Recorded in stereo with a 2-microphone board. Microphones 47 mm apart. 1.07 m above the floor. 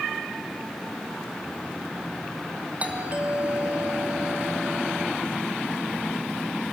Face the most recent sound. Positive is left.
turn(degrees=-30)  # may be behind; listen again after turning